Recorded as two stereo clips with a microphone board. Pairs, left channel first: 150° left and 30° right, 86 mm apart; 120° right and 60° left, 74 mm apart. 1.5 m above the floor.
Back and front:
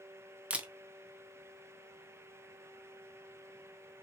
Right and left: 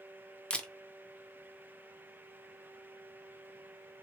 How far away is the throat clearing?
No throat clearing in this recording.